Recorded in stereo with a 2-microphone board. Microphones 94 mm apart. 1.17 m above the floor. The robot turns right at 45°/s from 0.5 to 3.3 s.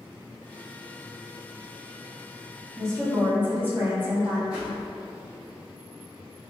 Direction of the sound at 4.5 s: 10° right (ahead or behind).